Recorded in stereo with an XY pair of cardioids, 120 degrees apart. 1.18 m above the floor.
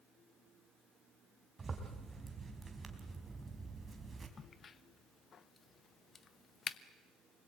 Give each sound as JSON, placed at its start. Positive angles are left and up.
{"t": 1.6, "sound": "a zipper", "azimuth_deg": -25, "distance_m": 4.0}
{"t": 4.4, "sound": "a crack", "azimuth_deg": 40, "distance_m": 1.0}